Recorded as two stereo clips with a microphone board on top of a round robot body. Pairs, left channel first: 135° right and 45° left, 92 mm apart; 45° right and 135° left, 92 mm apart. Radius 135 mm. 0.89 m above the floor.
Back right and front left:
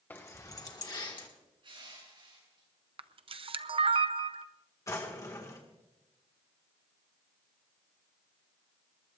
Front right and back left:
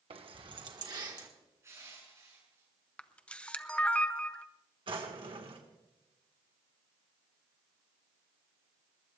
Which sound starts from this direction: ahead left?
A camera shutter, at 3.0 s.